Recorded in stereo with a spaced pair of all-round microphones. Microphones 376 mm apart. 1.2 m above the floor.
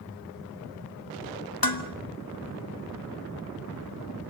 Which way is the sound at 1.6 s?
65° left (ahead or behind).